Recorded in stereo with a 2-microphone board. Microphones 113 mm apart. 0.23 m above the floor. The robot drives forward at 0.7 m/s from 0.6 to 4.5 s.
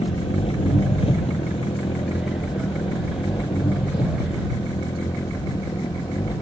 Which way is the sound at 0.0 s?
65° left (ahead or behind).